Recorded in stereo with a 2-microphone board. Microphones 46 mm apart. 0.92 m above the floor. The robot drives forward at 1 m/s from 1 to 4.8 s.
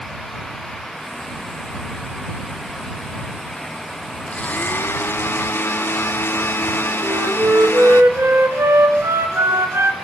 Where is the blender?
30° left (ahead or behind), 0.8 m; by 8.0 s 55° left (ahead or behind), 0.5 m.